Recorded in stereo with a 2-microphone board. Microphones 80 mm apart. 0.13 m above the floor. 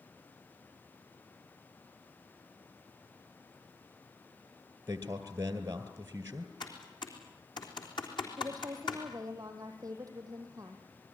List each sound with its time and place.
4.9 s a man speaking: 30° right (ahead or behind), 2 m
6.6 s typing on a keyboard: 65° left (ahead or behind), 3.5 m
8.4 s a woman speaking: 45° right (ahead or behind), 4.5 m